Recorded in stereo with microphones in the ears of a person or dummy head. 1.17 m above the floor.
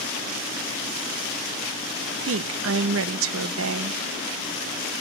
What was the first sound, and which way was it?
A woman speaking, 70° right (ahead or behind).